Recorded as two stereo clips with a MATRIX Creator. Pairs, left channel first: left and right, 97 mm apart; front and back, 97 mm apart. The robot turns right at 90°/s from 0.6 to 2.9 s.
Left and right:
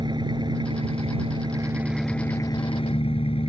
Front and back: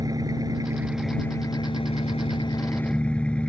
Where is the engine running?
130° right; by 3.5 s 80° left.